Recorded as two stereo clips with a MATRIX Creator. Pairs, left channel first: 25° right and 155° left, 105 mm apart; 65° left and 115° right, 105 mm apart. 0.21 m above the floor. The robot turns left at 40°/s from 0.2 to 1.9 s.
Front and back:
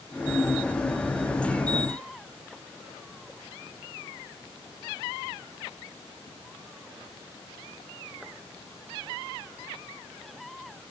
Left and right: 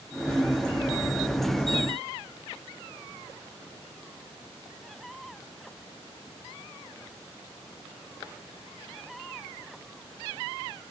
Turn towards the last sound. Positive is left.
No sound to turn to.